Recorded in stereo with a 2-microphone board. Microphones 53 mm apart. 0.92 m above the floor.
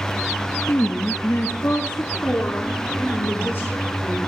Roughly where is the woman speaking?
Left.